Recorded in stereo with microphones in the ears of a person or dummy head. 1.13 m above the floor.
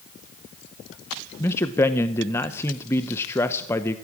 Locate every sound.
1.4 s a man speaking: 15° left (ahead or behind), 0.6 m